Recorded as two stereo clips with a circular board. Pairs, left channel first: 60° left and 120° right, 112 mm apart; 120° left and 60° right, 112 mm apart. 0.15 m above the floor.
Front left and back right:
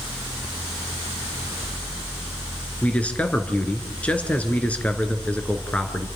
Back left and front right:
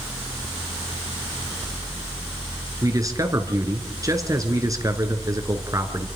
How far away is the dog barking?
No dog barking in this recording.